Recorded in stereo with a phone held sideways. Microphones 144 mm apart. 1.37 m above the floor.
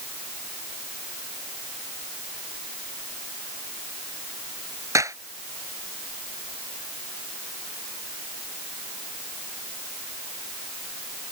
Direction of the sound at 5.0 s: 20° right (ahead or behind).